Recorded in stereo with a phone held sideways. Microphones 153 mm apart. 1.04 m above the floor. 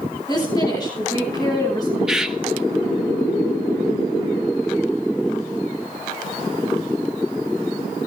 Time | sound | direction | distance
0.3 | a woman speaking | 25° left (ahead or behind) | 10 m
2.1 | a bird | 5° right (ahead or behind) | 1.5 m